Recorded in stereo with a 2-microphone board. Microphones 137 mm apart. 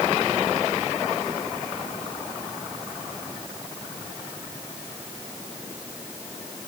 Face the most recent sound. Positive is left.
No sound to turn to.